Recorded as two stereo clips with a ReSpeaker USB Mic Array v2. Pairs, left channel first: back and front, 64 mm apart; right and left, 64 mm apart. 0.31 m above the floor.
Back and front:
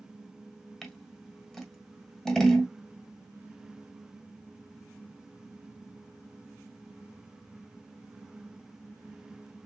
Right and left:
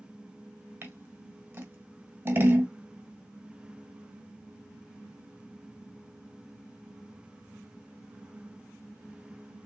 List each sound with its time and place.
0.8 s scissors: 105° left, 1.8 m